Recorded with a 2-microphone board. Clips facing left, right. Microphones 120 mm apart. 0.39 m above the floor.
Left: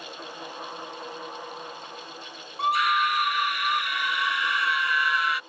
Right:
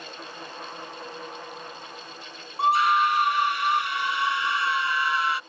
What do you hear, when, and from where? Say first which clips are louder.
2.6 s a scream: right 3 dB; 30° right (ahead or behind)